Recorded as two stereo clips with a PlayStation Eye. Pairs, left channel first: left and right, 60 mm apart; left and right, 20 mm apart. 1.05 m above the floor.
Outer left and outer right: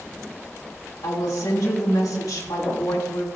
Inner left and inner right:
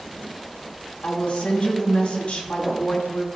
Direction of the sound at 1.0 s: 85° left.